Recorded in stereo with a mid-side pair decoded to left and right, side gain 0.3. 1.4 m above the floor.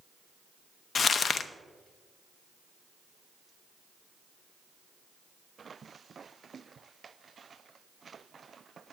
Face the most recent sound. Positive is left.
turn(degrees=65)